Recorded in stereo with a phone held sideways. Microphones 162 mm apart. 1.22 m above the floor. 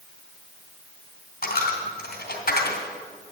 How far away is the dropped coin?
About 2.5 m.